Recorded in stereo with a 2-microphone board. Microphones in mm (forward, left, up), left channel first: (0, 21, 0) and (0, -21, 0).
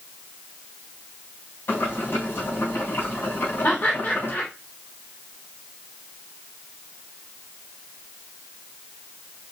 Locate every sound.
1.7 s boiling: 70° left (ahead or behind), 4 m
3.6 s laughter: 55° left (ahead or behind), 2.5 m